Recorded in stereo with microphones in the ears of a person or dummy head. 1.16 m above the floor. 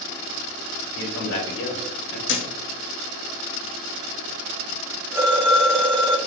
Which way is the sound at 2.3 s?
65° left (ahead or behind).